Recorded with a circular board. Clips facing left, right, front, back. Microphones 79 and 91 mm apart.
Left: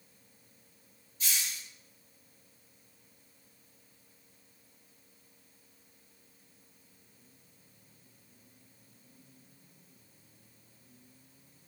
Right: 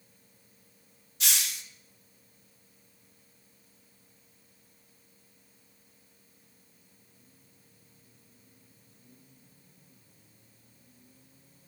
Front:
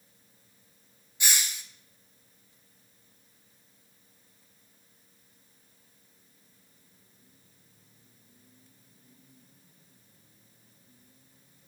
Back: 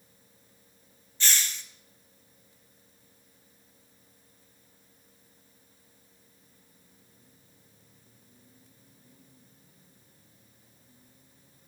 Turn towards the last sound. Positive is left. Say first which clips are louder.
# right 3 dB, even
turn(degrees=-80)